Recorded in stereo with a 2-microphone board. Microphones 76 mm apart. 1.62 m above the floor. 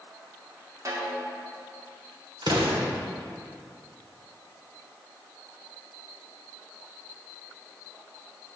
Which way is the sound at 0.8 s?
45° right (ahead or behind).